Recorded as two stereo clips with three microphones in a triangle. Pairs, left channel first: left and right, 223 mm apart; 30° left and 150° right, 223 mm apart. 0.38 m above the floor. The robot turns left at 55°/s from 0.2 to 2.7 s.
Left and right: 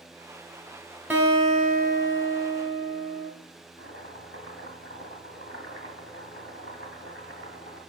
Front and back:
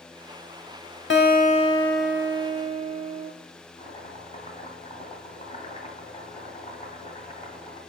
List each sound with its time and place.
1.1 s a guitar: 10° right, 0.7 m; by 3.3 s 100° right, 0.7 m
3.8 s chopping: 85° left, 1.6 m